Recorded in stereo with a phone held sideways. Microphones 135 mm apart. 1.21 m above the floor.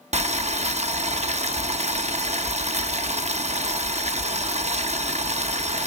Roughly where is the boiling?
Right.